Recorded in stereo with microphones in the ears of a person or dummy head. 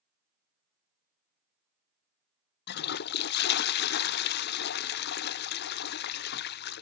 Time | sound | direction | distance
2.7 | a toilet flushing | 55° left (ahead or behind) | 0.6 m